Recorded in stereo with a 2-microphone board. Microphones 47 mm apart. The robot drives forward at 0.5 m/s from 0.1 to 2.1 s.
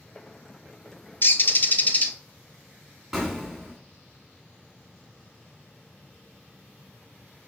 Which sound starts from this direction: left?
A bird, at 1.2 s.